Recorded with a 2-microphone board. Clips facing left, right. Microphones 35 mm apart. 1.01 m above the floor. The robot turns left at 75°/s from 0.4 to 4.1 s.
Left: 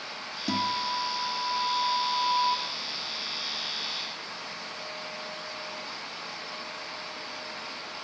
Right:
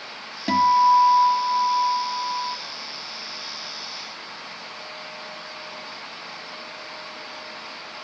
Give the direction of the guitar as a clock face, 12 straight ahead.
2 o'clock.